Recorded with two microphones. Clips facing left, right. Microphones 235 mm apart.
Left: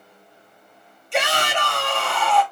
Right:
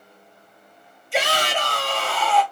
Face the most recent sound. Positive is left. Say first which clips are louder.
# even
turn(degrees=-5)  # may be behind; listen again after turning